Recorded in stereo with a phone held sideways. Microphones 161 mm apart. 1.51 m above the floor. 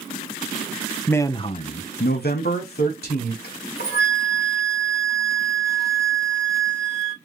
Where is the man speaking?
10° left (ahead or behind), 0.5 m; by 3.3 s 70° left (ahead or behind), 1.2 m.